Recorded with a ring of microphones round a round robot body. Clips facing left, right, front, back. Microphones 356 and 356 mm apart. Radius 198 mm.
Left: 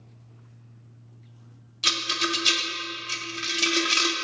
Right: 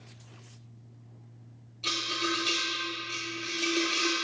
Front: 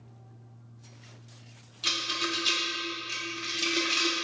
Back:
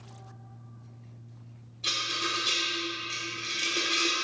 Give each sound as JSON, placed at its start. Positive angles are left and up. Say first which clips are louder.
{"t": 1.8, "sound": "a rattle", "louder": "left 2 dB, front 3 dB", "azimuth_deg": 50, "distance_m": 0.5}